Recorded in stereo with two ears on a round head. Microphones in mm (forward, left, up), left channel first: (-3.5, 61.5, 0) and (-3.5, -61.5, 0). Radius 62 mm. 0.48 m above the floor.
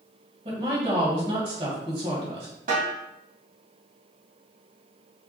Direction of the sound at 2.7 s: 65° right (ahead or behind).